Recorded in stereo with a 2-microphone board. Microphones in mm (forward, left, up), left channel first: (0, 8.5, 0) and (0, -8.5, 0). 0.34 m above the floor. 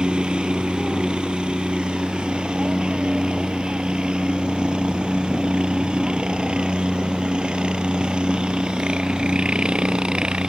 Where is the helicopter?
70° right (ahead or behind).